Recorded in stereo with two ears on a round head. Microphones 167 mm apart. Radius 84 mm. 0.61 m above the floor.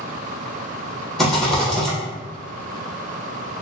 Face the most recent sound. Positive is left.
turn(degrees=0)  # may be behind; listen again after turning